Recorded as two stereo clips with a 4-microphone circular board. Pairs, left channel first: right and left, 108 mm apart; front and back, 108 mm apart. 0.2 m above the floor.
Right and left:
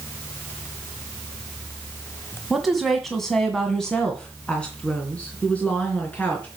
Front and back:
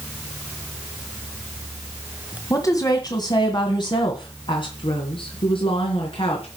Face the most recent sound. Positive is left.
turn(degrees=-15)